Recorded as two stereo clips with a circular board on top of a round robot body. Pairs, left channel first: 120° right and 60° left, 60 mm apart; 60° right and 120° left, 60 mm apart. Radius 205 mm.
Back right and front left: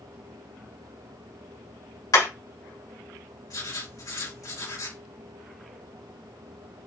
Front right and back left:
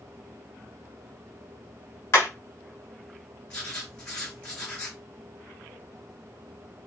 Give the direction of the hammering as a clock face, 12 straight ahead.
3 o'clock.